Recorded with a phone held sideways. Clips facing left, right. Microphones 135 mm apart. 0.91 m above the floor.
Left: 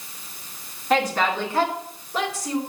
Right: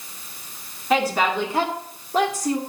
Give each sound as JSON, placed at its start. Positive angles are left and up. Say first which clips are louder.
{"t": 0.9, "sound": "a woman speaking", "louder": "right 1 dB", "side_deg": 0, "distance_m": 2.0}